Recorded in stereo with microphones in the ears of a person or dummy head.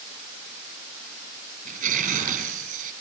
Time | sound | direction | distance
1.6 | tearing paper | 45° right (ahead or behind) | 6.5 m